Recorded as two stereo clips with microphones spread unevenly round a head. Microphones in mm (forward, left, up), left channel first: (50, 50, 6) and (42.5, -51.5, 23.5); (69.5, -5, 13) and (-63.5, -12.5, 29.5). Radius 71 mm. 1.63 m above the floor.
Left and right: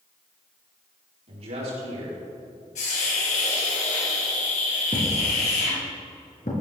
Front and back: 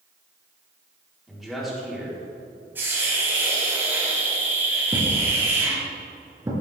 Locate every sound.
1.3 s a man speaking: 90° right, 5 m
2.8 s a hiss: 110° left, 5.5 m
4.9 s a thud: 120° left, 4 m